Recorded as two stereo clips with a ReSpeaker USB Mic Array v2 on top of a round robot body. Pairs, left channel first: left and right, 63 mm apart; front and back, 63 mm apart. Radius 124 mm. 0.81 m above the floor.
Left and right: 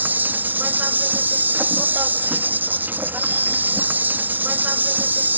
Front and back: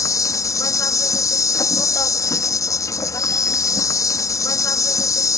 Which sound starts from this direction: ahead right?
An insect, at 0.0 s.